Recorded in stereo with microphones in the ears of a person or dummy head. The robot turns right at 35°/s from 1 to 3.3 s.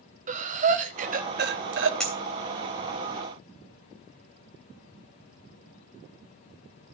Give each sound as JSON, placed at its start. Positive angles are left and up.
{"t": 0.3, "sound": "breathing", "side_deg": -35, "distance_m": 0.8}
{"t": 2.0, "sound": "a clink", "side_deg": 0, "distance_m": 3.0}